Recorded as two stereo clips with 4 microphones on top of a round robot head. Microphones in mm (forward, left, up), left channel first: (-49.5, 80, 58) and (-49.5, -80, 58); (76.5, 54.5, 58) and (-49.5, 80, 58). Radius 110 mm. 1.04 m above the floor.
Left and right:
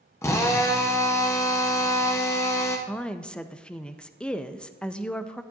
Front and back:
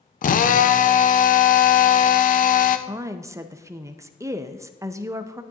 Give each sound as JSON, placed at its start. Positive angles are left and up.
{"t": 0.2, "sound": "a drill", "azimuth_deg": 15, "distance_m": 0.7}
{"t": 2.9, "sound": "a woman speaking", "azimuth_deg": 165, "distance_m": 0.6}